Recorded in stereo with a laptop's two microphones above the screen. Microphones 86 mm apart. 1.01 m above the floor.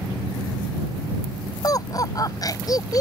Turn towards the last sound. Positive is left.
turn(degrees=40)  # may be behind; listen again after turning